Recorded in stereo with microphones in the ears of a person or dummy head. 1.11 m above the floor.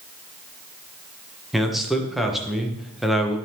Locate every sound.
1.5 s a man speaking: centre (ahead or behind), 1.1 m